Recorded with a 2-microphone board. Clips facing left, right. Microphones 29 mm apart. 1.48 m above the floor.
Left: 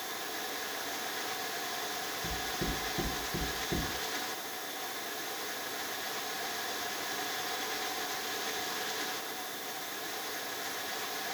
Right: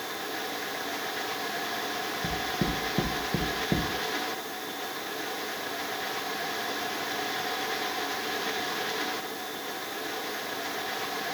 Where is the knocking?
75° right (ahead or behind), 0.8 m.